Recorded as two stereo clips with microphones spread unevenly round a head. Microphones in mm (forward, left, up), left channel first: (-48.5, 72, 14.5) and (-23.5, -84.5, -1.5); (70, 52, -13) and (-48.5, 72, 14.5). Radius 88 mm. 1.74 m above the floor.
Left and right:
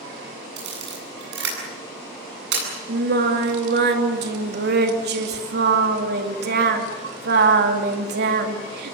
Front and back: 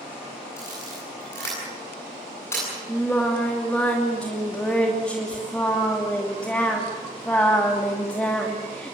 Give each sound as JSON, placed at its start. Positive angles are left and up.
{"t": 0.6, "sound": "a camera shutter", "azimuth_deg": -90, "distance_m": 9.0}
{"t": 2.9, "sound": "singing", "azimuth_deg": -100, "distance_m": 2.5}